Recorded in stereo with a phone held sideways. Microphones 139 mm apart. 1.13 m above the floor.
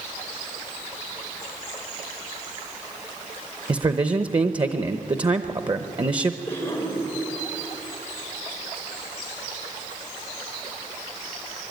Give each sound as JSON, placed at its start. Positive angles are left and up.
{"t": 3.7, "sound": "a man speaking", "side_deg": -35, "distance_m": 0.7}
{"t": 6.5, "sound": "a cough", "side_deg": 20, "distance_m": 5.5}